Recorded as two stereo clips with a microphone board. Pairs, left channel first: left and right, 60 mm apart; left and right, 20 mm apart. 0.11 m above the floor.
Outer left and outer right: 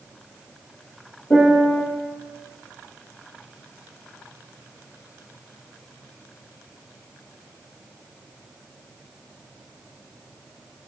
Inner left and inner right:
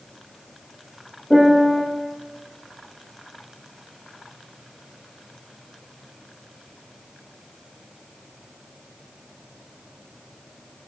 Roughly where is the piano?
Left.